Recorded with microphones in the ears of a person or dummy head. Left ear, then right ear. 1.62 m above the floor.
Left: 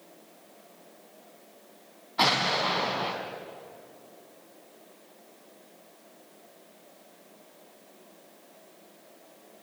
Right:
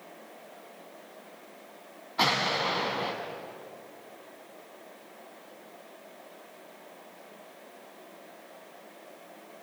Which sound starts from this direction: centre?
An explosion, at 2.2 s.